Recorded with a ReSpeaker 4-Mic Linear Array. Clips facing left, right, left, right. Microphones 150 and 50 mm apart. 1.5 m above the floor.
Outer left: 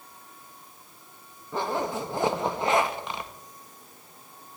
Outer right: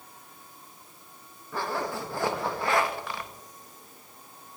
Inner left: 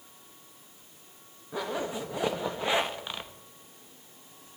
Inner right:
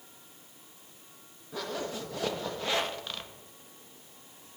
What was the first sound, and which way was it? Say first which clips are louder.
A zipper: outer left 3 dB, inner left 3 dB; 20° left (ahead or behind).